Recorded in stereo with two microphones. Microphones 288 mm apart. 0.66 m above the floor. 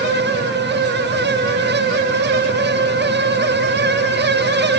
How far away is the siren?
I don't hear a siren.